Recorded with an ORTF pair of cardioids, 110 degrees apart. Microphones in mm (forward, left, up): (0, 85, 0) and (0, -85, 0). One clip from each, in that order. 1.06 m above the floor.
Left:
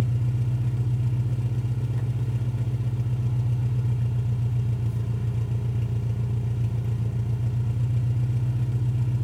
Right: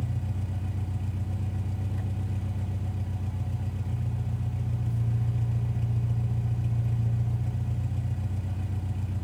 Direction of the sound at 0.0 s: 40° left.